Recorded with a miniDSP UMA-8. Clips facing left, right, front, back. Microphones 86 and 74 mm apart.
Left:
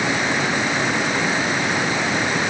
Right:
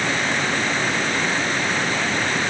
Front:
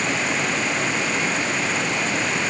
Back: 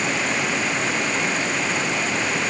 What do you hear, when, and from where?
Only background noise.